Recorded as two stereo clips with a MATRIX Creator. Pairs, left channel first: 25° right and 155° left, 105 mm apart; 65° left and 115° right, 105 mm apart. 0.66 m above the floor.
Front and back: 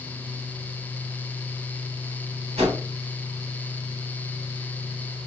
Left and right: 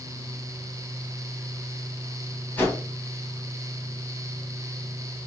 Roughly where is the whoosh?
Behind left.